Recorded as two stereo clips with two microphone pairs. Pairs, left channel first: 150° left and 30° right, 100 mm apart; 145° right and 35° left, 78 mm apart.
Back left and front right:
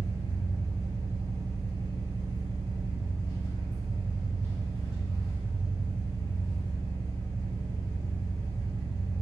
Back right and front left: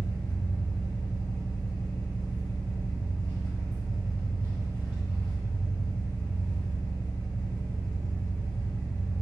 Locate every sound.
0.0 s an engine running: 160° left, 0.8 m